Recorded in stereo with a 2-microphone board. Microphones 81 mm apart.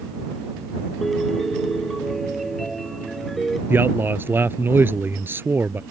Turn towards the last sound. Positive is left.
turn(degrees=-25)  # may be behind; listen again after turning